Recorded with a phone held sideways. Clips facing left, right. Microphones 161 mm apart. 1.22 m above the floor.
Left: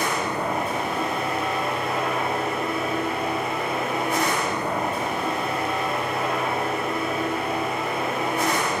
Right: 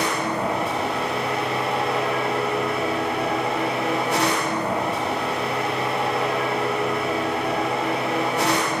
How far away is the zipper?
No zipper in this recording.